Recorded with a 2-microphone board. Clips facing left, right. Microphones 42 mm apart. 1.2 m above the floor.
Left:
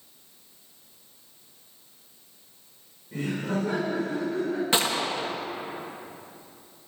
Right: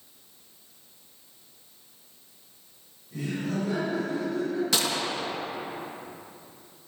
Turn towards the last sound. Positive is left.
turn(degrees=30)  # may be behind; listen again after turning